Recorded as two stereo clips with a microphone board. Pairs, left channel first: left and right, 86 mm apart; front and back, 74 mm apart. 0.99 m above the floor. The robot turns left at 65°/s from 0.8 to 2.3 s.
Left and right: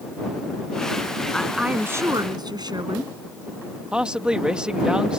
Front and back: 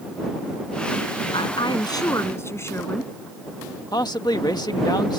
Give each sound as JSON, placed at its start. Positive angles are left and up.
{"t": 1.3, "sound": "a woman speaking", "azimuth_deg": 10}
{"t": 3.9, "sound": "a man speaking", "azimuth_deg": -10}